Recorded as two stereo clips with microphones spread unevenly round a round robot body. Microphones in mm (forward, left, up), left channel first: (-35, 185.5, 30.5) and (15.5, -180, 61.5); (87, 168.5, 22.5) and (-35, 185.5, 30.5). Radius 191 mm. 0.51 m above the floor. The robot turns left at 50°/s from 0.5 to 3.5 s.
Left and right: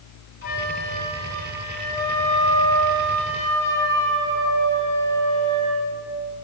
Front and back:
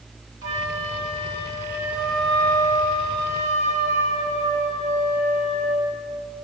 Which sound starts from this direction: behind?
A flute, at 0.4 s.